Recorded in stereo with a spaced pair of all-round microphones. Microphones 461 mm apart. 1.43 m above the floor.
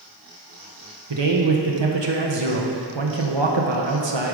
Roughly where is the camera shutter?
No camera shutter in this recording.